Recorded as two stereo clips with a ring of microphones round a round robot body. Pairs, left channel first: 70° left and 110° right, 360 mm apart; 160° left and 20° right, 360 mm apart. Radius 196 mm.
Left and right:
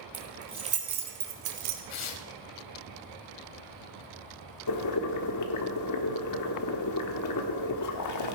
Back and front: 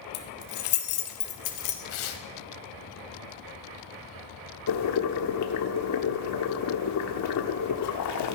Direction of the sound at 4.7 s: 110° left.